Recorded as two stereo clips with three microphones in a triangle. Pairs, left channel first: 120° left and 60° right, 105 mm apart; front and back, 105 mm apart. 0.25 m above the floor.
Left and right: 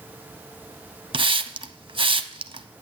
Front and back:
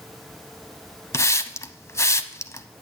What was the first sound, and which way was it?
A hiss, 55° right.